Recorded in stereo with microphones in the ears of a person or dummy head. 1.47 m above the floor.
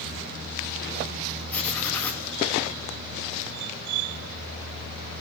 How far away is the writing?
About 1.4 m.